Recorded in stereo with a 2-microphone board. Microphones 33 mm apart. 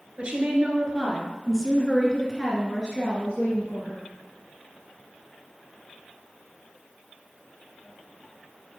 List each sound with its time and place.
0.2 s a woman speaking: 30° right (ahead or behind), 1.4 m; by 4.1 s 35° left (ahead or behind), 1.9 m